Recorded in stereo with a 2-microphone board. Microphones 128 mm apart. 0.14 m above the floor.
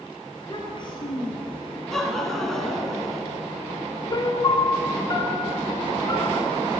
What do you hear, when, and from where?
0.3 s a child speaking: 40° left (ahead or behind), 1.4 m
1.9 s laughter: 5° left (ahead or behind), 1.1 m
4.1 s a piano: 35° left (ahead or behind), 0.5 m